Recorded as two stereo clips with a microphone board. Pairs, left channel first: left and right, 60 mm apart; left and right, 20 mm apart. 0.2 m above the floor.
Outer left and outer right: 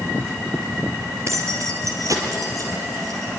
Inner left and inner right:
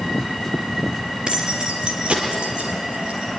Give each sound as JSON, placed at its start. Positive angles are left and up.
{"t": 1.3, "sound": "keys jangling", "side_deg": -55, "distance_m": 3.0}